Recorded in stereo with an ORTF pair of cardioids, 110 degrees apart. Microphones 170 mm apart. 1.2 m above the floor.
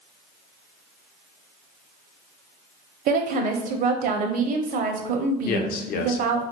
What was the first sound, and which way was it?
A woman speaking, 55° right.